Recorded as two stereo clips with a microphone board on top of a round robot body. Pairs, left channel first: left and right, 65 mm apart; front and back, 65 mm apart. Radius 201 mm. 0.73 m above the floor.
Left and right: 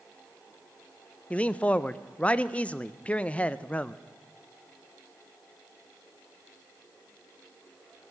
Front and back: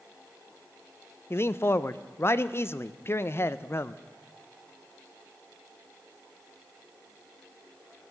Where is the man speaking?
25° left, 0.6 m.